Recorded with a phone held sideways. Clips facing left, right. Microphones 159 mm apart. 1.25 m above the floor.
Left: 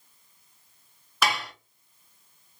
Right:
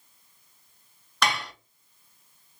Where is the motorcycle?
No motorcycle in this recording.